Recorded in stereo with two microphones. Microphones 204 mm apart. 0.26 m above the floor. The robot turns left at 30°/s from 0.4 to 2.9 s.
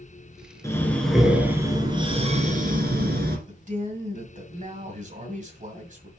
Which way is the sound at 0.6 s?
15° left.